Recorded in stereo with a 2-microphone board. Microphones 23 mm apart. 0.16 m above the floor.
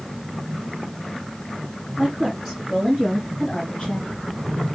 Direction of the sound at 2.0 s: Centre (ahead or behind).